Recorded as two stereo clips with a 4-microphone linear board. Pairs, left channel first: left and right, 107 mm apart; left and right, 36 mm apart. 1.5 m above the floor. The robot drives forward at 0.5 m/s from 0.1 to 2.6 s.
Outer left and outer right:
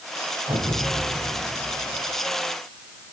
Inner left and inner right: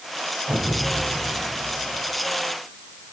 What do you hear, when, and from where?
0.5 s an explosion: 40° right (ahead or behind), 7 m; by 2.0 s 35° right (ahead or behind), 7.5 m